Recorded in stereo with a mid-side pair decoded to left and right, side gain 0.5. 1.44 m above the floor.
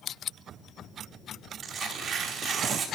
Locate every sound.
1.6 s tearing paper: 55° right, 4.5 m